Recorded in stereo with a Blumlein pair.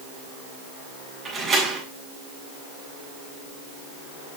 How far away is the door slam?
About 7.5 m.